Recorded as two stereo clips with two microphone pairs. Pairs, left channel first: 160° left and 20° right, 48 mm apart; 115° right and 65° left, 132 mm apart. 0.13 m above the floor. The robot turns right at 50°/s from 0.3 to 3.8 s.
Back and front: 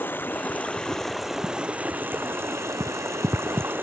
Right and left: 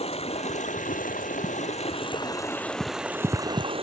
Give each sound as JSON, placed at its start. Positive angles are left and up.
{"t": 0.0, "sound": "running water", "azimuth_deg": -155}